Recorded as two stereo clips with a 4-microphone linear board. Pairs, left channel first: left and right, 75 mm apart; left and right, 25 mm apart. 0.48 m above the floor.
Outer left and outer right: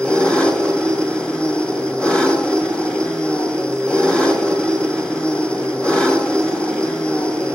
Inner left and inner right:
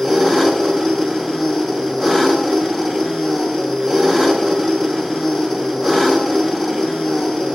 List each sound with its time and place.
0.0 s an engine running: 15° left (ahead or behind), 4.5 m